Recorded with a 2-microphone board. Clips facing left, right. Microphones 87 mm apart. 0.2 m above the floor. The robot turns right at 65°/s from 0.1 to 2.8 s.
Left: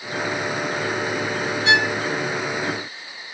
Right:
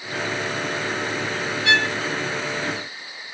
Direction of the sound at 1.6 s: 25° left (ahead or behind).